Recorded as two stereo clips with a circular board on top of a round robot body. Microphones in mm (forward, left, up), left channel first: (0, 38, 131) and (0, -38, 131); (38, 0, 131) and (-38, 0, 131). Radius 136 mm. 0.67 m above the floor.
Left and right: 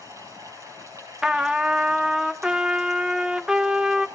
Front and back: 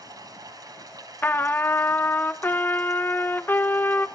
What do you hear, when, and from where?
0.0 s running water: 140° right, 5 m
1.2 s a trumpet: 20° right, 0.8 m